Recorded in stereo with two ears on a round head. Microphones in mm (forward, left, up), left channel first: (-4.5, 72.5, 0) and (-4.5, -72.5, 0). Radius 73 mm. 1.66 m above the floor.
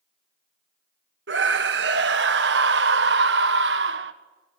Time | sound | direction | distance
1.3 | a scream | 80° right | 1.5 m